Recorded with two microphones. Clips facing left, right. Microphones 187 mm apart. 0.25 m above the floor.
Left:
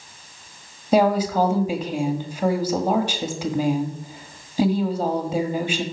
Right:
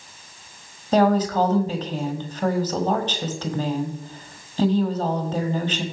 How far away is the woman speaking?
About 1.3 m.